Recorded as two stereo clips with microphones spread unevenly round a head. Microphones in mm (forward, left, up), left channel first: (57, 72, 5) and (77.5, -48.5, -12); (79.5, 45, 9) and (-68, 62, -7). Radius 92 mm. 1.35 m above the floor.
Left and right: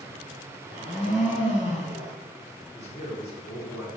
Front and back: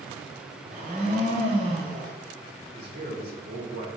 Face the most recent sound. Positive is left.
turn(degrees=155)